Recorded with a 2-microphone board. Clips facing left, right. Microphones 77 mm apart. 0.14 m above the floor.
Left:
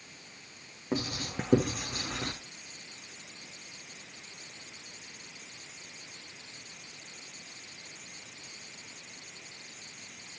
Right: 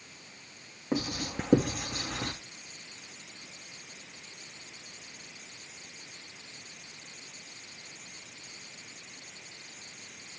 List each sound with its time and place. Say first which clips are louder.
0.9 s writing: right 2 dB; 5° right (ahead or behind), 3.5 m